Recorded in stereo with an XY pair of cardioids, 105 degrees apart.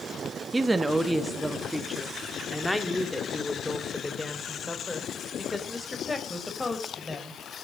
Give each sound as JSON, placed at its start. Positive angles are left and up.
{"t": 0.5, "sound": "a woman speaking", "azimuth_deg": -25, "distance_m": 1.7}